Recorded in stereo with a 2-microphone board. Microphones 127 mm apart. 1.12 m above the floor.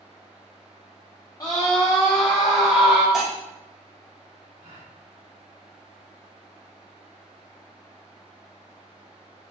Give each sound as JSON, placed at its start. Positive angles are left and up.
{"t": 1.4, "sound": "a scream", "side_deg": 30, "distance_m": 0.6}
{"t": 3.1, "sound": "breaking glass", "side_deg": -5, "distance_m": 1.6}
{"t": 4.6, "sound": "a gasp", "side_deg": -65, "distance_m": 2.0}